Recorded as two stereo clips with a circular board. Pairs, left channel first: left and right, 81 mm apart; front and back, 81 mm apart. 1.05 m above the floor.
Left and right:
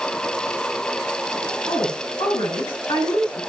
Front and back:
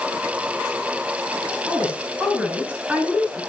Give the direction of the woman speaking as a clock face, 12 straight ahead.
9 o'clock.